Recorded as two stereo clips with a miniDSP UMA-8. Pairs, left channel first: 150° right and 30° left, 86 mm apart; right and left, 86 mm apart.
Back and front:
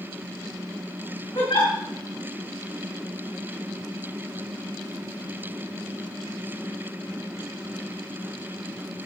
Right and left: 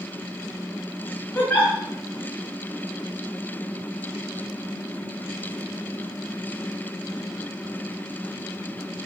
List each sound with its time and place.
1.4 s a giggle: 155° right, 4.5 m